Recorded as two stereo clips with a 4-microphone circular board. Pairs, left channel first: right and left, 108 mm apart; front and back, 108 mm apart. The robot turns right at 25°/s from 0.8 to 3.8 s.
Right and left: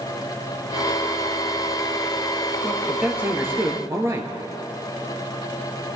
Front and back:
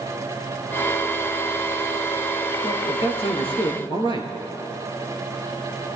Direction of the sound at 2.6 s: Straight ahead.